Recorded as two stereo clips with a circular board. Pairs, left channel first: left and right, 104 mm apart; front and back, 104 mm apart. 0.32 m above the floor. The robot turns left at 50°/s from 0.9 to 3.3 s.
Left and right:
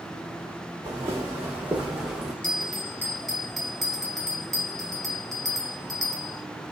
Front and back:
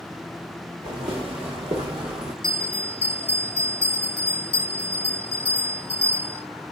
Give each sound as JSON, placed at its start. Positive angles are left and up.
{"t": 0.8, "sound": "footsteps", "azimuth_deg": -145, "distance_m": 2.5}
{"t": 2.4, "sound": "a bell", "azimuth_deg": 45, "distance_m": 0.8}